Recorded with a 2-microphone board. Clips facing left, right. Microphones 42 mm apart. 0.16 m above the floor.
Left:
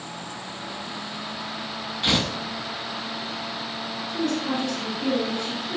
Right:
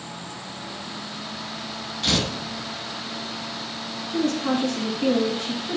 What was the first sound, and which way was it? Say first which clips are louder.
Tearing paper: left 1 dB; 20° left (ahead or behind).